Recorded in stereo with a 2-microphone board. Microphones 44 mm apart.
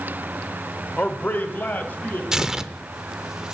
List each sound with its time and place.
1.0 s a man speaking: 40° left (ahead or behind), 1.0 m; by 2.2 s 45° left (ahead or behind), 2.5 m
2.3 s tearing paper: 15° right (ahead or behind), 0.5 m